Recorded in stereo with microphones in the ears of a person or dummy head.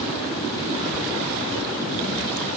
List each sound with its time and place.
Only background noise.